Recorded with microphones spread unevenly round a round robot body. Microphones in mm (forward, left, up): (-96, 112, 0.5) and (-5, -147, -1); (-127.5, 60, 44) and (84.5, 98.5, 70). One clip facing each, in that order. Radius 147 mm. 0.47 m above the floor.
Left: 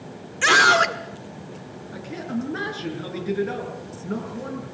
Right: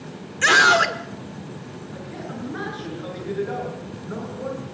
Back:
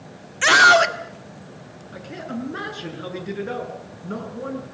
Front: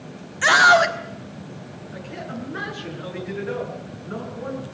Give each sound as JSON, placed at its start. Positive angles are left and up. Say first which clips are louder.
{"t": 0.4, "sound": "a scream", "louder": "even, even", "azimuth_deg": -165, "distance_m": 1.5}
{"t": 1.9, "sound": "a man speaking", "louder": "left 7 dB, back 3 dB", "azimuth_deg": 155, "distance_m": 8.0}